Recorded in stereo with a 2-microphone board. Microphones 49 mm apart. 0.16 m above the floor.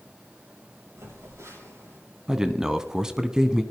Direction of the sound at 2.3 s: 15° right (ahead or behind).